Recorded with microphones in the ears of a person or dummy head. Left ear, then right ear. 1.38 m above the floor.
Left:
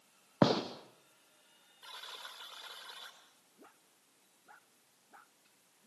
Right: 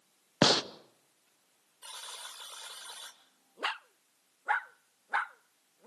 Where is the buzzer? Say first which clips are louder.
Right 3 dB; 25° right (ahead or behind), 2 m.